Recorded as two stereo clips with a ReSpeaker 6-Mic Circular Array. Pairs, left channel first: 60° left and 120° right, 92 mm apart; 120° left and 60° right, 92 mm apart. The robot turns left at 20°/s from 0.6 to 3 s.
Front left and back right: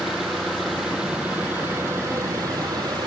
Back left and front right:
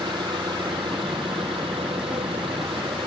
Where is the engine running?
30° right; by 3.1 s 80° right.